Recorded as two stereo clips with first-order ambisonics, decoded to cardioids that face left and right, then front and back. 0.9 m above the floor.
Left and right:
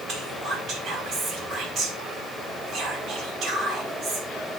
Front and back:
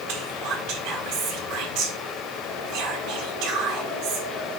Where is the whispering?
145° right, 4.5 m.